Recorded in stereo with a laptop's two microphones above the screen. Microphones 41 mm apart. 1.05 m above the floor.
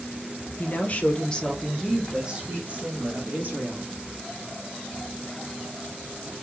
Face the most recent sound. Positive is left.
turn(degrees=-55)  # may be behind; listen again after turning